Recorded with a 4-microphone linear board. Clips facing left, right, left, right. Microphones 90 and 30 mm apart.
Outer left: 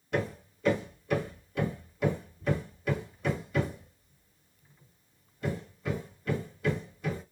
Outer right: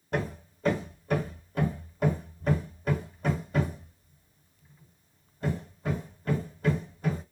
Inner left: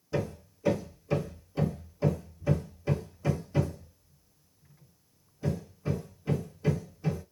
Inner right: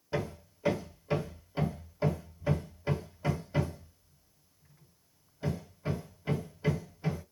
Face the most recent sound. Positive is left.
turn(degrees=-35)  # may be behind; listen again after turning